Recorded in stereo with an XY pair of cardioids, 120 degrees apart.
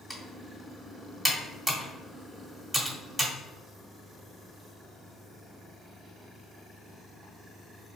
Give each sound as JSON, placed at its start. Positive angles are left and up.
{"t": 0.1, "sound": "typing on a keyboard", "azimuth_deg": 0, "distance_m": 1.5}